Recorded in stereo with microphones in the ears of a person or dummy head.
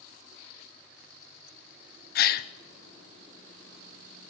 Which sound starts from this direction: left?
A gasp, at 2.1 s.